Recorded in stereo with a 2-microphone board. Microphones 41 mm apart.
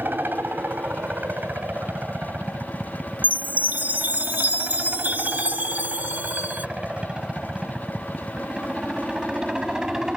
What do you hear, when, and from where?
0.0 s a helicopter: 55° right (ahead or behind); by 10.2 s 15° right (ahead or behind)
3.2 s a chime: 50° right (ahead or behind)